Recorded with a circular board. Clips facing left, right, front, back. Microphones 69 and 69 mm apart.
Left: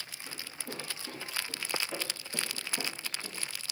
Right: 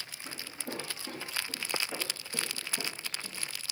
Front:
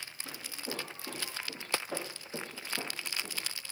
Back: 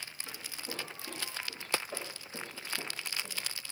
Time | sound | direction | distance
0.2 | footsteps | 30° right | 5 m